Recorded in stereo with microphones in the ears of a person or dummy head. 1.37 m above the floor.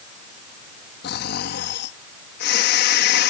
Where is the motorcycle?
I don't hear a motorcycle.